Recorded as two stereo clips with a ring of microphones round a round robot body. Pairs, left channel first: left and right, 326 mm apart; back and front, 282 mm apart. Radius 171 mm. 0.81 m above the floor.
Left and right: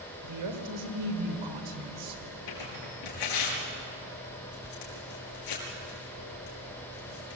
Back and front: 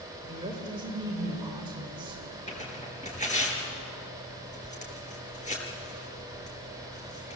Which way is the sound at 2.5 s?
115° left.